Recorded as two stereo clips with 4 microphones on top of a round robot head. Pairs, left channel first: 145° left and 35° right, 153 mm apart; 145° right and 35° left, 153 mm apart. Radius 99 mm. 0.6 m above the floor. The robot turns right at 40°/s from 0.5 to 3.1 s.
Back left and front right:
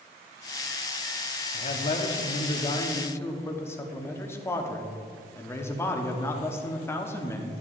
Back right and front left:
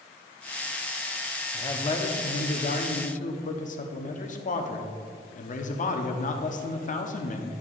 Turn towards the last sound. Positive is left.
turn(degrees=-145)